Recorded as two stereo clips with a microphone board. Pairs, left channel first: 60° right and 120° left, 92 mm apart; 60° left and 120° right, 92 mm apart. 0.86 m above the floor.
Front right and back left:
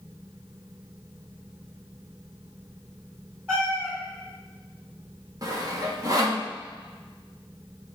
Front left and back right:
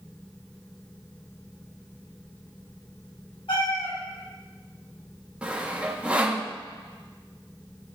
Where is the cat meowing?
55° left, 5 m.